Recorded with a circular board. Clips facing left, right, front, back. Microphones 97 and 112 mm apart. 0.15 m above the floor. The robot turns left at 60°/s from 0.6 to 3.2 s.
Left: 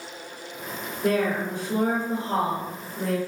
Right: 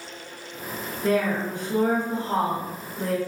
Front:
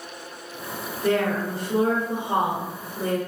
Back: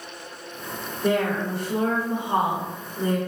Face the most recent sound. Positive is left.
turn(degrees=-20)